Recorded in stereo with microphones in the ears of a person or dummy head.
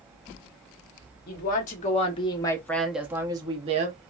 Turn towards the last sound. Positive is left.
turn(degrees=-40)  # may be behind; listen again after turning